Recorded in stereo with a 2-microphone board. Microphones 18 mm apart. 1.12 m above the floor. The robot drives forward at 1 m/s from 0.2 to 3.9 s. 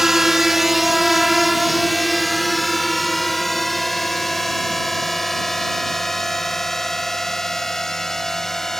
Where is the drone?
20° right (ahead or behind); by 8.8 s 25° left (ahead or behind).